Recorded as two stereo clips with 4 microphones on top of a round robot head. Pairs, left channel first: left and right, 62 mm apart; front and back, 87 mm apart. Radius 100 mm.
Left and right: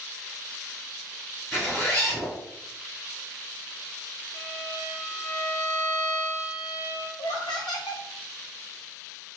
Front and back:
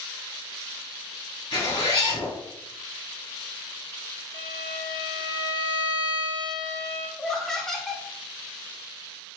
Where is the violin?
20° left, 0.9 m.